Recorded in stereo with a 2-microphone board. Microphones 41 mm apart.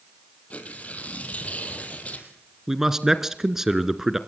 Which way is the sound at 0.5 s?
35° left (ahead or behind).